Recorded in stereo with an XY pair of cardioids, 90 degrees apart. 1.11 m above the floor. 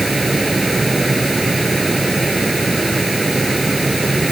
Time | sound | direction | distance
0.0 | a fan | 20° right | ?